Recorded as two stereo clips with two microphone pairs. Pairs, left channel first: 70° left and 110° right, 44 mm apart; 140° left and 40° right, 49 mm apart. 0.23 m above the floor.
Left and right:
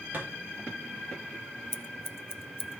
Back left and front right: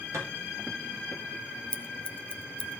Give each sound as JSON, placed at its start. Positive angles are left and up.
{"t": 0.1, "sound": "a thud", "azimuth_deg": -60, "distance_m": 5.0}
{"t": 1.7, "sound": "scissors", "azimuth_deg": 75, "distance_m": 0.7}